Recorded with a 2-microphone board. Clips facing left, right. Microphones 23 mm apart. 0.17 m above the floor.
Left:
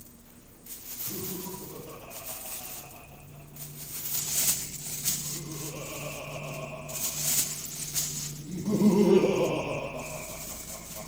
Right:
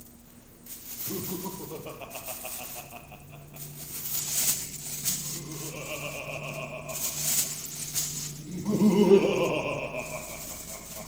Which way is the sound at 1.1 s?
75° right (ahead or behind).